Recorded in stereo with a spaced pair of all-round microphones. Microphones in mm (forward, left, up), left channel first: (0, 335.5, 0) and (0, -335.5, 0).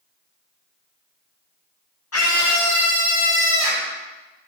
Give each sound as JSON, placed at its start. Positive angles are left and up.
{"t": 2.1, "sound": "a scream", "side_deg": 25, "distance_m": 0.6}